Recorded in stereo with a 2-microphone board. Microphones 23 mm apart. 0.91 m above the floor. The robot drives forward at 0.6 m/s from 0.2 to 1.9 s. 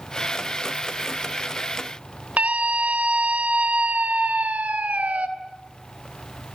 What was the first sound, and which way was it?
A scream, 85° right.